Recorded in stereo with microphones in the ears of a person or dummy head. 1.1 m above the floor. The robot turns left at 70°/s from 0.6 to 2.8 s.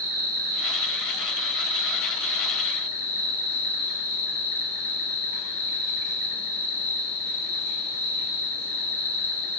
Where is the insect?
80° right, 0.8 m; by 9.6 s 125° left, 0.8 m.